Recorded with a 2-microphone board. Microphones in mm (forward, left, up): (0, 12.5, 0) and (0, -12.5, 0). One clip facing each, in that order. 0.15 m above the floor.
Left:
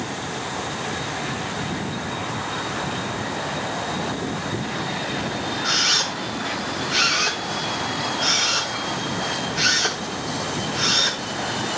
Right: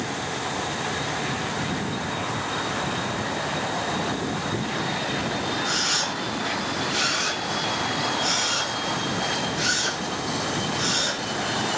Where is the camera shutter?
50° left (ahead or behind), 8 m.